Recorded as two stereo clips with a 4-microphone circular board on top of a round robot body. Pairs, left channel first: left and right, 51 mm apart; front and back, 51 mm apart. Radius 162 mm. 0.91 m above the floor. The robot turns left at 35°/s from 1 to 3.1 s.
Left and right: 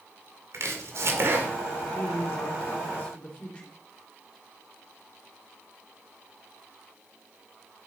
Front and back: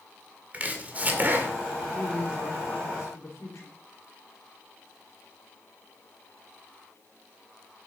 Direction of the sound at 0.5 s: 120° right.